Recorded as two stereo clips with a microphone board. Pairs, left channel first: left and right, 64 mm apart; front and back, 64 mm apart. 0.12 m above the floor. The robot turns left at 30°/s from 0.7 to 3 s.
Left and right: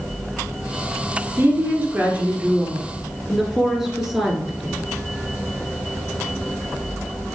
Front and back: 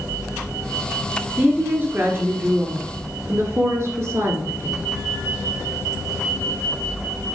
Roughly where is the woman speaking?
Behind right.